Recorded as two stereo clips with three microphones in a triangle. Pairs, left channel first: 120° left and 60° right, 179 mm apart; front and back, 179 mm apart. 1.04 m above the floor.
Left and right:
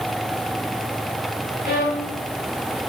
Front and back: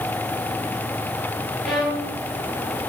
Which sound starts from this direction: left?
A violin, at 1.6 s.